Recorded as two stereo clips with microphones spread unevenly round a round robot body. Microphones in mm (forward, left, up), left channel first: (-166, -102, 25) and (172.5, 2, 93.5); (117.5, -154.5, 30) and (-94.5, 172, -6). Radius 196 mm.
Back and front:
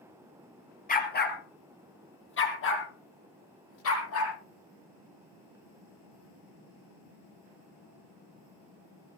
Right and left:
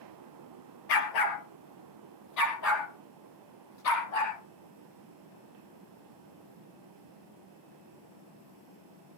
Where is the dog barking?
95° right, 3 m; by 4.3 s 110° right, 6.5 m.